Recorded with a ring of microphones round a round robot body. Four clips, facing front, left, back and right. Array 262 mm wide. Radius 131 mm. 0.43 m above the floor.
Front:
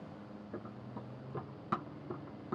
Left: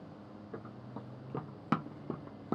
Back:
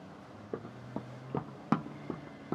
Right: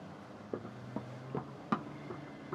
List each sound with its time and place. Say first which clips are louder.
0.5 s running footsteps: right 5 dB, back 6 dB; 140° right, 0.9 m; by 2.6 s 120° left, 0.9 m